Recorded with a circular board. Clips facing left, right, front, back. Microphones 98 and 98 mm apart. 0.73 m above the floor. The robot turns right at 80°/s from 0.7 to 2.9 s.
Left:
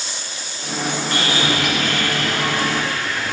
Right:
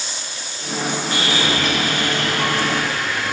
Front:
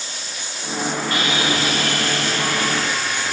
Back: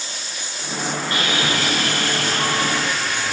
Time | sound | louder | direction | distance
1.1 | sawing | left 1 dB, even | 125° left | 7.5 m